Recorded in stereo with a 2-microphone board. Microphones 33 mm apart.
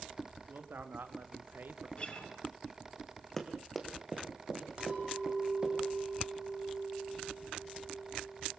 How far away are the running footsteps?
About 2.5 m.